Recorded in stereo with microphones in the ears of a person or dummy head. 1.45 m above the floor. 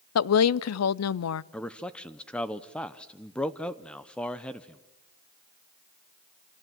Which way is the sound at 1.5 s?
Centre (ahead or behind).